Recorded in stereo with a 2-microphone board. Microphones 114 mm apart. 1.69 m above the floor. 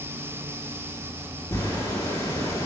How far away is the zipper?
About 1.5 m.